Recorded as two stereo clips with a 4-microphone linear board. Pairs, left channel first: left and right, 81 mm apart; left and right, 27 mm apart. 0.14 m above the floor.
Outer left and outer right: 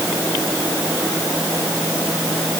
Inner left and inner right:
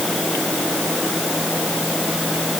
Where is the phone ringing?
No phone ringing in this recording.